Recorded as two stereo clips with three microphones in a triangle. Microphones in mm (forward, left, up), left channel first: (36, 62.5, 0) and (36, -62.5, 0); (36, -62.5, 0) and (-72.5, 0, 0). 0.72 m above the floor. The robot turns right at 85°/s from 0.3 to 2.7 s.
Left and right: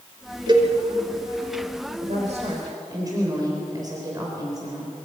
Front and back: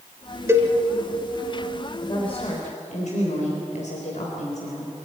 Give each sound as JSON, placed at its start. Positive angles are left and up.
{"t": 0.5, "sound": "a cowbell", "azimuth_deg": -140, "distance_m": 1.8}
{"t": 2.0, "sound": "a woman speaking", "azimuth_deg": -90, "distance_m": 3.5}